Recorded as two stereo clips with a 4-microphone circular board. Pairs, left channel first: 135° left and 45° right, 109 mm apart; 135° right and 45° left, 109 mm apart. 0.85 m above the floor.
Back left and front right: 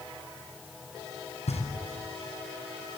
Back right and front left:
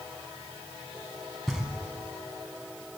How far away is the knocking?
About 5 m.